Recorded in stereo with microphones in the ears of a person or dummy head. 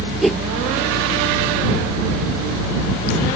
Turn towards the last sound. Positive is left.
turn(degrees=0)  # may be behind; listen again after turning